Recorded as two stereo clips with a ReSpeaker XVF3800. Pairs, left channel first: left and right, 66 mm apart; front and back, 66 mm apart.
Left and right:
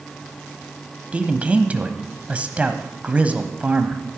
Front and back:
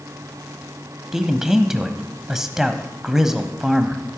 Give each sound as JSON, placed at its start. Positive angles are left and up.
{"t": 1.1, "sound": "a man speaking", "azimuth_deg": -110, "distance_m": 1.0}